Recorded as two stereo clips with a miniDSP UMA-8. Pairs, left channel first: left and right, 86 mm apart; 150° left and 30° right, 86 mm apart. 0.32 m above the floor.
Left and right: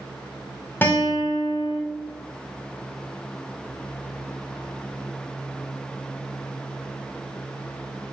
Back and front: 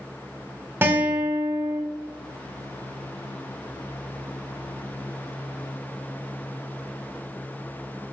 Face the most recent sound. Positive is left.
turn(degrees=30)